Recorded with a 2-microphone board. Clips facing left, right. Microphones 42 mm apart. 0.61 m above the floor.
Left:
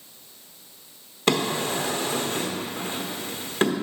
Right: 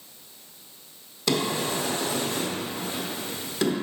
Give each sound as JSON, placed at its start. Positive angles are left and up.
{"t": 1.3, "sound": "a drawer", "side_deg": 40, "distance_m": 1.0}